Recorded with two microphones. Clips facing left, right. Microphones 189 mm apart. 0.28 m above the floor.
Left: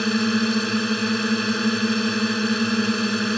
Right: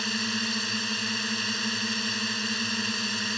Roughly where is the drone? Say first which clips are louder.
Left 12 dB; left.